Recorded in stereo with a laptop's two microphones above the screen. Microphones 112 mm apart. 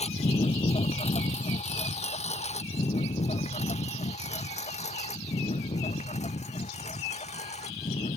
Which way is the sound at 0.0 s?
75° left (ahead or behind).